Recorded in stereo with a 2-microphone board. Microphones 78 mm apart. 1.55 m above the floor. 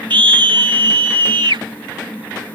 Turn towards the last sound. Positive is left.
turn(degrees=-90)